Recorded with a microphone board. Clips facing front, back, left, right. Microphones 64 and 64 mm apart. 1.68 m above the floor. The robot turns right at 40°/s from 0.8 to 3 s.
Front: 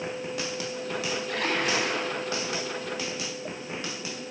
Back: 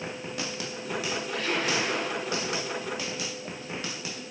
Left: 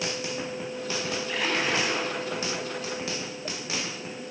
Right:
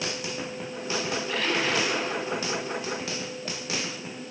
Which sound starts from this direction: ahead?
A splash, at 1.3 s.